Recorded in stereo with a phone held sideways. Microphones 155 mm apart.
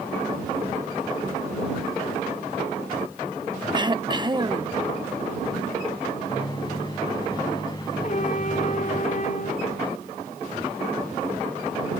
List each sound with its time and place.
3.7 s throat clearing: 30° right (ahead or behind)
6.3 s a microwave: 30° left (ahead or behind)
8.0 s a trumpet: 55° left (ahead or behind)